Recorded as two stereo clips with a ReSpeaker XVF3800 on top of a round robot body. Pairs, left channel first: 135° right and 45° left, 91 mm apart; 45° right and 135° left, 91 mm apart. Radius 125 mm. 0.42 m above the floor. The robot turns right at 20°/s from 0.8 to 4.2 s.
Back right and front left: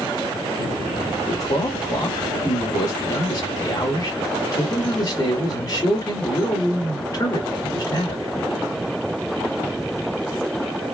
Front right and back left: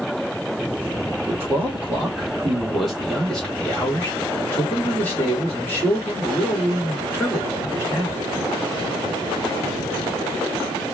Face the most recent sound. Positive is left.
turn(degrees=-105)